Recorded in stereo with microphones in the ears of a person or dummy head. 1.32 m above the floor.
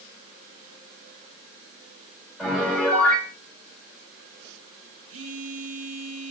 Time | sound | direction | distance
2.4 | a piano | 5° left (ahead or behind) | 6.5 m
5.1 | a phone buzzing | 75° right (ahead or behind) | 2 m